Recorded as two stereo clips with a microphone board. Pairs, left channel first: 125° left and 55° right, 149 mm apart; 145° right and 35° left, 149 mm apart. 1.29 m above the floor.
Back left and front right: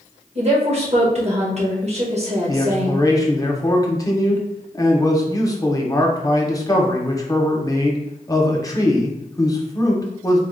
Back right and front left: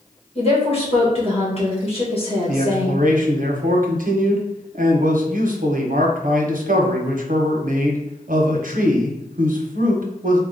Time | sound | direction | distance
0.3 | a woman speaking | 100° right | 1.7 m
2.5 | a man speaking | 60° left | 0.9 m